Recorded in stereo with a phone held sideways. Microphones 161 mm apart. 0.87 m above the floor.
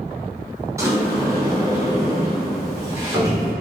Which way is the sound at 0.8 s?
20° right (ahead or behind).